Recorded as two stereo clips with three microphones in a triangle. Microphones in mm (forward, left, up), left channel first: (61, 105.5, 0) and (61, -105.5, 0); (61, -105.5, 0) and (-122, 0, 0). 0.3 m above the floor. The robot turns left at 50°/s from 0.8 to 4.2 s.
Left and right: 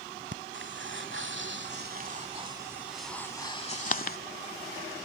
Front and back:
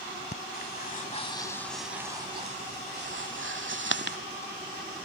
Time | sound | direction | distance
0.3 | breathing | 70° right | ?